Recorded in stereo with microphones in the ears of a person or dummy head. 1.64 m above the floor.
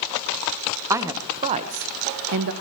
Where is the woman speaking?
15° right (ahead or behind), 1.4 m; by 2.5 s 70° right (ahead or behind), 1.1 m.